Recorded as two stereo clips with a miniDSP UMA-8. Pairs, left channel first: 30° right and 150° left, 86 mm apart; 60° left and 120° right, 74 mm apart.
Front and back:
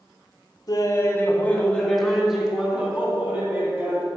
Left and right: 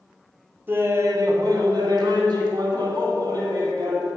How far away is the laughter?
About 1.1 m.